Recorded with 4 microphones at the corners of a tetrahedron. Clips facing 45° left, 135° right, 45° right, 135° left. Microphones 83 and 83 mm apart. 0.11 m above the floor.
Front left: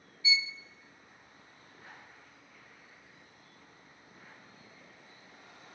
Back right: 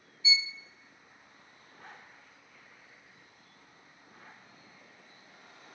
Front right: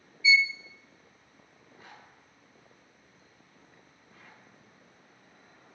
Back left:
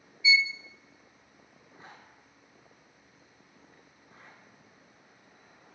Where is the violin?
Straight behind, 0.7 m.